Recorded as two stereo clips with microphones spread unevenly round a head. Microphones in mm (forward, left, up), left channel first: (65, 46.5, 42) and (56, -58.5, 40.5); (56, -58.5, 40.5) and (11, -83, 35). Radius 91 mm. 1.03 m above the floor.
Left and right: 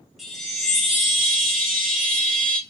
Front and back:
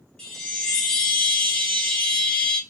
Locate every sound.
0.2 s a chime: 10° right, 0.5 m